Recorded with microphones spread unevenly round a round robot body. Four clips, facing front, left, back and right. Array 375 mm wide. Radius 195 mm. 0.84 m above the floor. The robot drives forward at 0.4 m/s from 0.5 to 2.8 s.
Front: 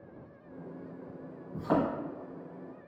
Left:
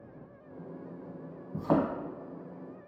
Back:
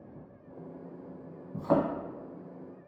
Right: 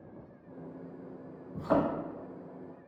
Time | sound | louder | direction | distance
1.5 | a thud | left 1 dB, back 2 dB | 100° left | 1.6 m